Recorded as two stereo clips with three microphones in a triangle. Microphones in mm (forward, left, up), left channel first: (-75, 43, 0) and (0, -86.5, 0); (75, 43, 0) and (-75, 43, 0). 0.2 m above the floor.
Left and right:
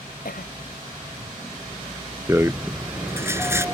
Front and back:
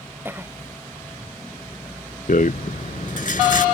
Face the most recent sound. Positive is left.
turn(degrees=10)